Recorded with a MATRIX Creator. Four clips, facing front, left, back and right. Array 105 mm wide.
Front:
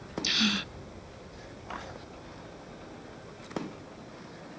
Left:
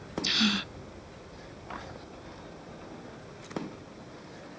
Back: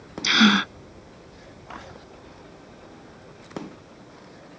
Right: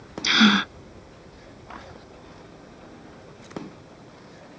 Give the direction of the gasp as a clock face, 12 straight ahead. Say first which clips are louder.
Right 12 dB, back 14 dB; 5 o'clock.